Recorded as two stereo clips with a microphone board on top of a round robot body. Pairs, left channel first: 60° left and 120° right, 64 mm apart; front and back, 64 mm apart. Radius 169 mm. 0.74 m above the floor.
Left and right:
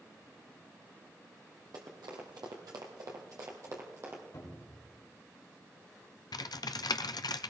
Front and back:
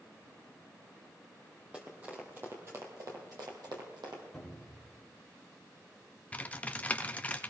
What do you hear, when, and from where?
1.7 s running footsteps: 110° right, 1.6 m; by 4.2 s 170° right, 1.9 m
4.3 s a cupboard door: 90° left, 4 m
6.3 s typing on a keyboard: 70° left, 0.5 m